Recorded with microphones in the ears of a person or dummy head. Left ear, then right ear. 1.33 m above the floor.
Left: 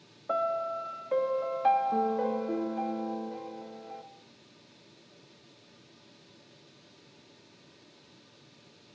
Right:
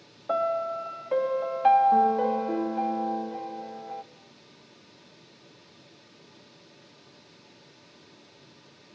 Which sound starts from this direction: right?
A piano, at 0.3 s.